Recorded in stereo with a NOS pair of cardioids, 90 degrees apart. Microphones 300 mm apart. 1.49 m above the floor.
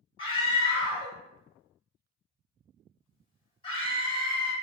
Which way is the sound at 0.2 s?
15° left.